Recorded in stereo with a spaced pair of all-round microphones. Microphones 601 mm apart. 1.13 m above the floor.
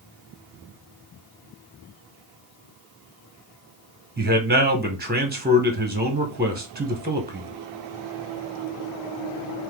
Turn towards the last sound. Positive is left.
turn(degrees=-15)  # may be behind; listen again after turning